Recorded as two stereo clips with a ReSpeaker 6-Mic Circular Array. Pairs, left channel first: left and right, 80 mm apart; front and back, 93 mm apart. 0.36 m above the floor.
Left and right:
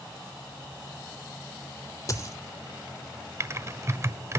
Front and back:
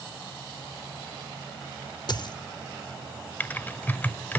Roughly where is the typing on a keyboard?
Ahead right.